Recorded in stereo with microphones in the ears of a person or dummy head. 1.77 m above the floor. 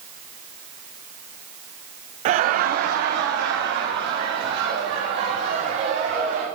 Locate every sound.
2.2 s laughter: 40° right (ahead or behind), 0.7 m; by 6.5 s 65° right (ahead or behind), 5 m